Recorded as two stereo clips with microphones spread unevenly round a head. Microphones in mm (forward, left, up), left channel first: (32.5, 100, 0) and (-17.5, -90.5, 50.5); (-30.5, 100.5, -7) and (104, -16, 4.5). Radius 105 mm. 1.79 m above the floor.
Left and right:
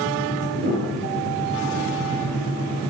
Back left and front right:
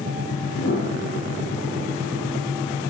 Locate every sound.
0.6 s a piano: 155° right, 9.5 m